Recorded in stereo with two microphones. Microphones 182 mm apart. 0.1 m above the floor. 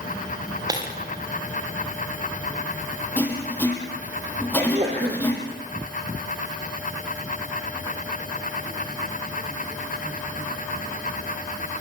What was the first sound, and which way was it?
Breaking glass, 20° right (ahead or behind).